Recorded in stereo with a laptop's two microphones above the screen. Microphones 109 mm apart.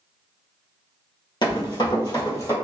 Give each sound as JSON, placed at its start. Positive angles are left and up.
{"t": 1.4, "sound": "running footsteps", "side_deg": 50, "distance_m": 1.3}